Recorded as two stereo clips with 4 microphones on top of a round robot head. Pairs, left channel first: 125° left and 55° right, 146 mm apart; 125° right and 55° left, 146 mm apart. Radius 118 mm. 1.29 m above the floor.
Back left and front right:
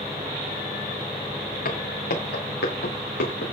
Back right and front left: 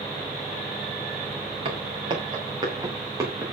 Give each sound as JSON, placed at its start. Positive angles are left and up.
{"t": 1.6, "sound": "footsteps", "azimuth_deg": 105, "distance_m": 8.0}